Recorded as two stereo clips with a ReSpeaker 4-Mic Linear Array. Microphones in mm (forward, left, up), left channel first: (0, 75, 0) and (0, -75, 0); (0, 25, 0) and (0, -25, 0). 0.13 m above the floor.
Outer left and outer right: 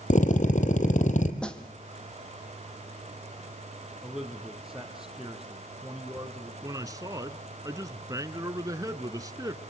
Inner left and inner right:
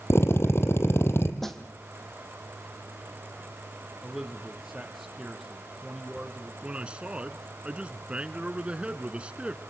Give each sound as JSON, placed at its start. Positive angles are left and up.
{"t": 0.1, "sound": "a drill", "side_deg": 55, "distance_m": 2.0}
{"t": 1.4, "sound": "a snare drum", "side_deg": 5, "distance_m": 2.0}
{"t": 4.0, "sound": "a man speaking", "side_deg": -5, "distance_m": 3.5}
{"t": 6.6, "sound": "a man speaking", "side_deg": -25, "distance_m": 1.2}